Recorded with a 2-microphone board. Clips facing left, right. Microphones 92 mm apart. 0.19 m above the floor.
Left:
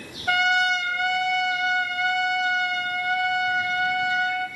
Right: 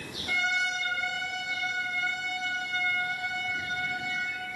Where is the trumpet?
70° left (ahead or behind), 2.0 m.